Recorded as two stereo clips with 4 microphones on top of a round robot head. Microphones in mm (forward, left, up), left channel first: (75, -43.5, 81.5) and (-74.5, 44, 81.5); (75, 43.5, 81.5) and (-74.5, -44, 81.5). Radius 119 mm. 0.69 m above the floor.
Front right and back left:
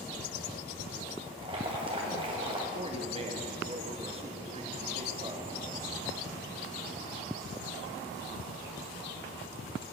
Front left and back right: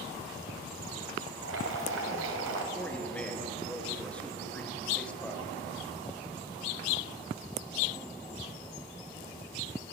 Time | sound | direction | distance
1.4 | boiling | 150° right | 1.5 m
2.8 | a man speaking | 110° left | 1.5 m